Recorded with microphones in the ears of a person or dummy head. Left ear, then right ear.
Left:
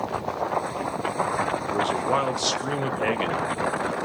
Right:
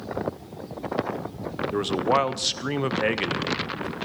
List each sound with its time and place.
1.7 s a man speaking: 15° right (ahead or behind), 0.7 m